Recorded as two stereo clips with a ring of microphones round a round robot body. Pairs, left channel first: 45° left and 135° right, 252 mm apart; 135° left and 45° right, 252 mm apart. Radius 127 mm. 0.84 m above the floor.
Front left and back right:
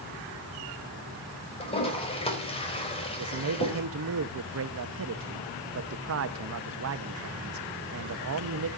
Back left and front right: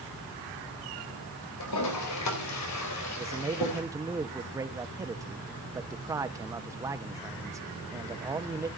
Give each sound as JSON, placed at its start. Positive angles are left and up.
{"t": 1.6, "sound": "a toilet flushing", "azimuth_deg": 115, "distance_m": 4.0}
{"t": 3.2, "sound": "a man speaking", "azimuth_deg": -120, "distance_m": 1.1}